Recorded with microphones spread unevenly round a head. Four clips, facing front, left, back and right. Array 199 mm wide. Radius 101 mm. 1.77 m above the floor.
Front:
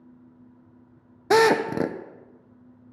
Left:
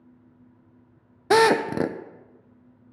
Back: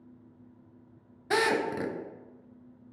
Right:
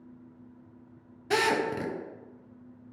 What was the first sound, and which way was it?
A drill, 45° left.